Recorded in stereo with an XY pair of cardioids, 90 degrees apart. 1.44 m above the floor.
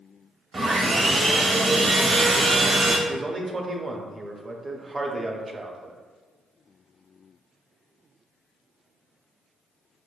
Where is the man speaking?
30° right, 0.6 m.